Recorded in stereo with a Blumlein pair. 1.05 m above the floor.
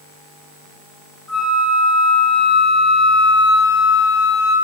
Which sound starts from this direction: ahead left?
A flute, at 1.3 s.